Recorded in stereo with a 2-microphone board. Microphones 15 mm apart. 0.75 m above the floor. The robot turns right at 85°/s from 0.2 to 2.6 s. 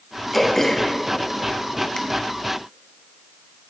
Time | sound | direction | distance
0.3 | throat clearing | centre (ahead or behind) | 0.8 m